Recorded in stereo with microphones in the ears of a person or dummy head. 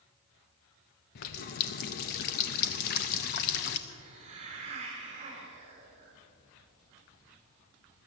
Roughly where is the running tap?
Left.